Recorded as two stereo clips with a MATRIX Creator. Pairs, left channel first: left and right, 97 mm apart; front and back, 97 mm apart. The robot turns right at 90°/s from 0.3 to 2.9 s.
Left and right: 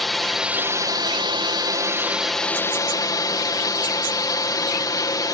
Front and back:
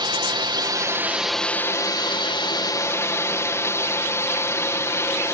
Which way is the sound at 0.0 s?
Straight behind.